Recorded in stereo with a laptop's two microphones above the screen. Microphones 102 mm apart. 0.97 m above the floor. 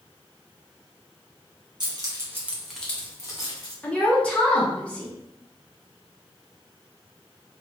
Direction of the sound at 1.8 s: 45° right (ahead or behind).